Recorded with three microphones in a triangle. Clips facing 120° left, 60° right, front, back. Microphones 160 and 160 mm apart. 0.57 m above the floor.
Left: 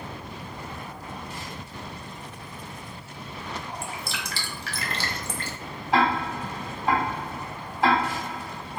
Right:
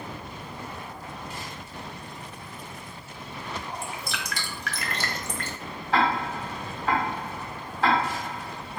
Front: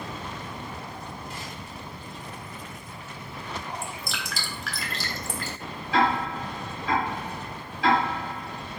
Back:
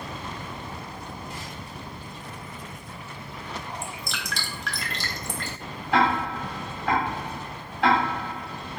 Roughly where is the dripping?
Left.